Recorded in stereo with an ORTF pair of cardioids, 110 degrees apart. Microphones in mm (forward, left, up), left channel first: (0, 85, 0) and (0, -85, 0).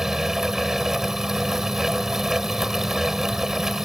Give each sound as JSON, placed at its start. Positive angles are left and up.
{"t": 0.0, "sound": "a fan", "azimuth_deg": 0}